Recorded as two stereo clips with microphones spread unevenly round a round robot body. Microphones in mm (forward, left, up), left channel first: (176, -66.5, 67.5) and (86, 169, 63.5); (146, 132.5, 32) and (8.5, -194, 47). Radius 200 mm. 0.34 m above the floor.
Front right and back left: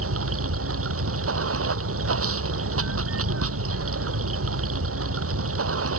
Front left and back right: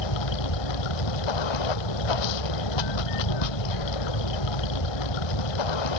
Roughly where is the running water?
Left.